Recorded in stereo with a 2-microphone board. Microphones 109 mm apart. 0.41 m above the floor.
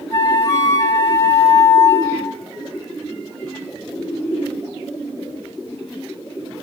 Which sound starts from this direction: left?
A flute, at 0.1 s.